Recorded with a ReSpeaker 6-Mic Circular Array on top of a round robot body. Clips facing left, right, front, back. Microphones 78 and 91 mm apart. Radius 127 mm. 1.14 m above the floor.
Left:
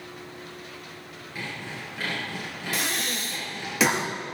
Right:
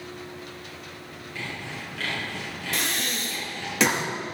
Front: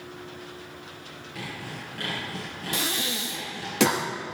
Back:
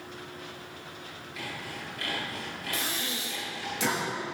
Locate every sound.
1.4 s sawing: 15° left, 8 m
2.7 s breathing: 5° left, 1.7 m